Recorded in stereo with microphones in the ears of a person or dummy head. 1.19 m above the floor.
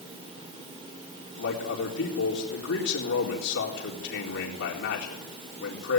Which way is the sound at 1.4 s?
70° left (ahead or behind).